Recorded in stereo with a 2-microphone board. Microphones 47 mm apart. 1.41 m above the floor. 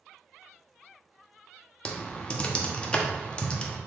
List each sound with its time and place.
1.9 s typing on a keyboard: 20° left (ahead or behind), 0.6 m